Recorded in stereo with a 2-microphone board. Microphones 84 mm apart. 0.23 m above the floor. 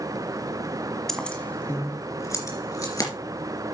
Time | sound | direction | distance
1.1 | keys jangling | 5° left (ahead or behind) | 1.3 m